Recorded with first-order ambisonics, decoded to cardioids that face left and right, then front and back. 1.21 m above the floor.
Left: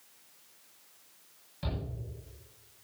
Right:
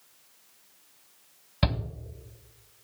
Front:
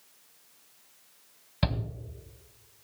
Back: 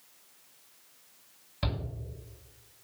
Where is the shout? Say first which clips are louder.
Right 10 dB, front 3 dB; 65° right, 1.9 m.